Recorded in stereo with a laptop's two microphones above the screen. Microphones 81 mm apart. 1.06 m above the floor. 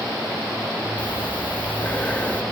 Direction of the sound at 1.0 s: 15° left (ahead or behind).